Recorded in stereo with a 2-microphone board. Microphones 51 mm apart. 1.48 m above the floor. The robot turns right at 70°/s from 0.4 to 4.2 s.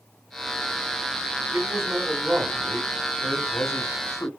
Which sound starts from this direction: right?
A man speaking, at 1.5 s.